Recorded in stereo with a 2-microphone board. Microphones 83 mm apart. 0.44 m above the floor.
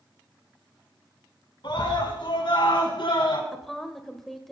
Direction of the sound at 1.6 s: 65° left (ahead or behind).